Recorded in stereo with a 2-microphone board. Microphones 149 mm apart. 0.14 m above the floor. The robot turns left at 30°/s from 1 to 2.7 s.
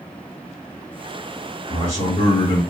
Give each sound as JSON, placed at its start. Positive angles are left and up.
{"t": 1.7, "sound": "a man speaking", "side_deg": 35, "distance_m": 1.8}